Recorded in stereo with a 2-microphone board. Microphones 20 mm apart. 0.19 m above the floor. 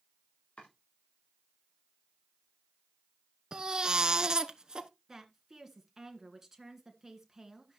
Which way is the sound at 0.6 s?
70° left (ahead or behind).